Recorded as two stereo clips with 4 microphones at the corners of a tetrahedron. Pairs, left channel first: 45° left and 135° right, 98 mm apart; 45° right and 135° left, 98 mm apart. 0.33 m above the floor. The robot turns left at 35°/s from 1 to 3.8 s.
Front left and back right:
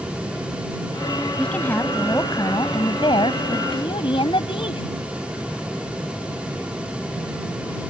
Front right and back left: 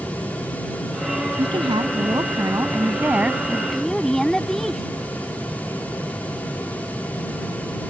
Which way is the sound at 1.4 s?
125° left.